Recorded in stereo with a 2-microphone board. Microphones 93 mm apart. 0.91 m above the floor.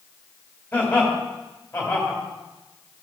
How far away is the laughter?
About 4 m.